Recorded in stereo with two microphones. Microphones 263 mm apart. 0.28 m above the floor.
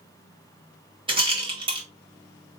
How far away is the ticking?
No ticking in this recording.